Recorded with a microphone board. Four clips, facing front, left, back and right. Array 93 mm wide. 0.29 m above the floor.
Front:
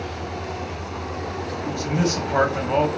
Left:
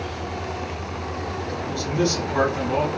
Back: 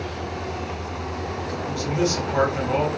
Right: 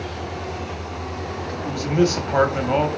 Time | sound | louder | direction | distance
1.6 | a man speaking | right 4 dB, even | 65° right | 1.1 m